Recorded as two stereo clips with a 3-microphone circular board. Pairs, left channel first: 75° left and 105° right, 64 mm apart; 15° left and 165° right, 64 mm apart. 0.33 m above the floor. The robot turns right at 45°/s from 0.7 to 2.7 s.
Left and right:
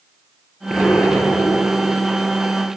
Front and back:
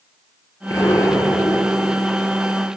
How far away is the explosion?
About 4.5 m.